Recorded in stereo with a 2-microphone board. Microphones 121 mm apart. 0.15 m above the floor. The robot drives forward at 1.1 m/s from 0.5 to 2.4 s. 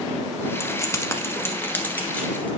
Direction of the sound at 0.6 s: 25° left (ahead or behind).